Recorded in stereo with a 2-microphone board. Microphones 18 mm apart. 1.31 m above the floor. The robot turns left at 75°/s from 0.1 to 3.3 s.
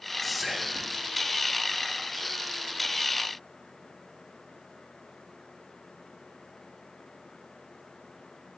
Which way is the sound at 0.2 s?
5° left.